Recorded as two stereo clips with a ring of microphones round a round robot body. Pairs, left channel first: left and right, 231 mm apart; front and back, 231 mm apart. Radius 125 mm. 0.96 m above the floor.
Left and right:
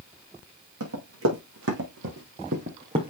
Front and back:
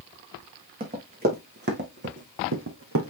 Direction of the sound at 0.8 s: 130° right.